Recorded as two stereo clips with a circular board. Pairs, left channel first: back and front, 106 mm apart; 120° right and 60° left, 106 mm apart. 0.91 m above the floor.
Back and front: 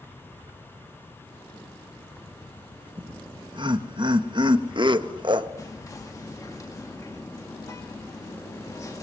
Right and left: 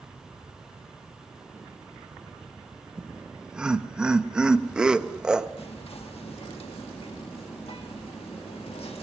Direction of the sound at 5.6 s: 125° right.